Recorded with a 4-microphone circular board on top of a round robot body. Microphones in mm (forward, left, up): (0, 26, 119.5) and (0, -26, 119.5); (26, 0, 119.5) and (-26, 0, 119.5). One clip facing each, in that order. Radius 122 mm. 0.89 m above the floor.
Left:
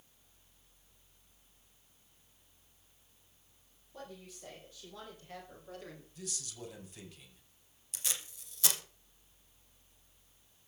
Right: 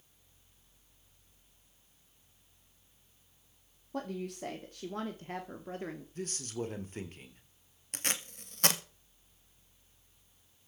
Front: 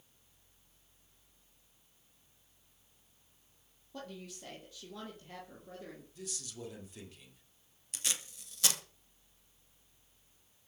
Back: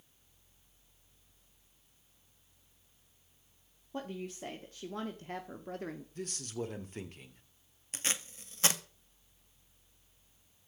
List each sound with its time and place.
3.9 s a woman speaking: 120° right, 2.5 m; by 6.0 s 150° right, 2.5 m
6.2 s a man speaking: 135° right, 3.5 m
7.9 s tape being pulled: 125° right, 2.5 m